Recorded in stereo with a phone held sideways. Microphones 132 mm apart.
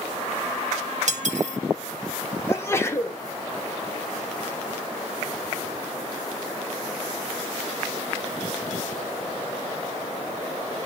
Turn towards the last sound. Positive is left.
turn(degrees=20)  # may be behind; listen again after turning